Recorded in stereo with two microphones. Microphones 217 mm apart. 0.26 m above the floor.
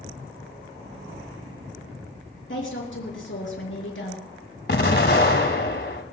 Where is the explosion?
50° left (ahead or behind), 1.5 m.